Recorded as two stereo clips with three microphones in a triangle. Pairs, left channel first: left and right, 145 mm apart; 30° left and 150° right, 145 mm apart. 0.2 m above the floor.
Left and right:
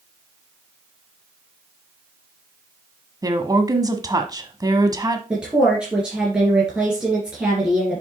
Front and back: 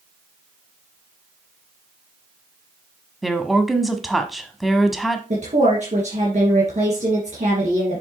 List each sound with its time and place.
3.2 s a woman speaking: 60° right, 1.1 m
5.3 s a woman speaking: 175° right, 3 m